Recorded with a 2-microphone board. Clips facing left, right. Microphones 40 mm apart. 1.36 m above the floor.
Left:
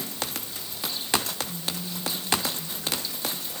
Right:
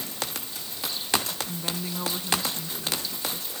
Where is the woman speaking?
85° right; by 3.5 s 75° right (ahead or behind).